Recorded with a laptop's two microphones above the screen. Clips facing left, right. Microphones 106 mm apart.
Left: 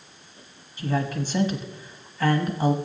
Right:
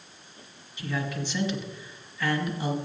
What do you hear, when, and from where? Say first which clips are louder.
0.8 s a man speaking: left 5 dB; 40° left (ahead or behind), 1.2 m